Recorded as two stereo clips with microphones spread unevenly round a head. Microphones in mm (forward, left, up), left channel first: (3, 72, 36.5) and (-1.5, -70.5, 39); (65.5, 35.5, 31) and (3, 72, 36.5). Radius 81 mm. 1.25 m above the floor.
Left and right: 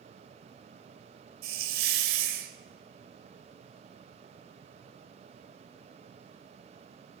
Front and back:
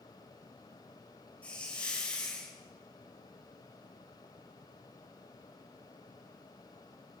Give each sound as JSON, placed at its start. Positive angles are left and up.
{"t": 1.4, "sound": "a hiss", "azimuth_deg": -115, "distance_m": 2.5}